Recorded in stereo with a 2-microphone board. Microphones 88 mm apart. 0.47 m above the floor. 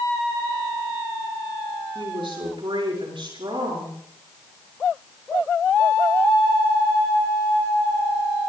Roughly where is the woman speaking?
Right.